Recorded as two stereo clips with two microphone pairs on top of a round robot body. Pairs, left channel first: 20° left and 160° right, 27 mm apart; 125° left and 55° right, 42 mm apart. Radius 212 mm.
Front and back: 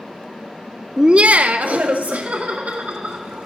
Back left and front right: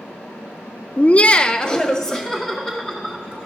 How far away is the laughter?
About 0.6 m.